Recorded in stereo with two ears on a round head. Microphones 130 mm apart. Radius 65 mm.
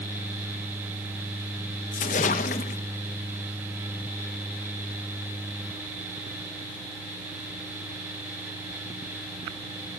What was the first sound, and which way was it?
A splash, 55° left (ahead or behind).